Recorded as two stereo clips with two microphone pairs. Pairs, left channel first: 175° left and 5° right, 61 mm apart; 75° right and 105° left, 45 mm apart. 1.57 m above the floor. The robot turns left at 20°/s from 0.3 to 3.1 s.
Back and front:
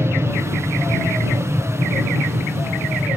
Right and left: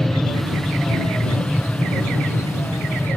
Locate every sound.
0.0 s an aircraft: 5° left; by 3.2 s 50° right